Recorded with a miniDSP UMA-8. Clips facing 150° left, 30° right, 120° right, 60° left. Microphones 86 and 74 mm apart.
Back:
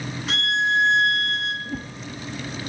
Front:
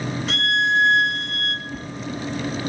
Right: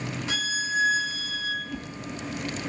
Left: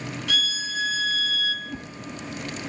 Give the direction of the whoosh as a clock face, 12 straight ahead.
8 o'clock.